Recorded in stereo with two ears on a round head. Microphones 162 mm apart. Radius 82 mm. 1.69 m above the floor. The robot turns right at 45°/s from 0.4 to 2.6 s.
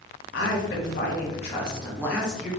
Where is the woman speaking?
90° left, 1.5 m; by 2.5 s 175° right, 1.5 m.